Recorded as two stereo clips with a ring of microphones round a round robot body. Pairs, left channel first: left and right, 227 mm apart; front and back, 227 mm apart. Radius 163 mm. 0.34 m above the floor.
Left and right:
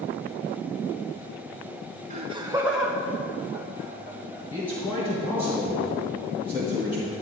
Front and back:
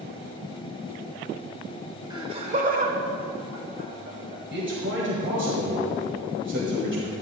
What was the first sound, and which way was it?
Laughter, 120° right.